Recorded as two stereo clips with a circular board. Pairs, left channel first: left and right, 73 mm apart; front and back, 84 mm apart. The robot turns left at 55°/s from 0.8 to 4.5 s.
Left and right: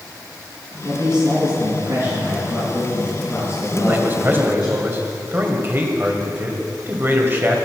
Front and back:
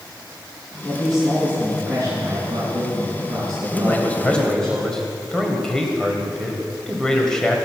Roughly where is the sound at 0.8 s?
Right.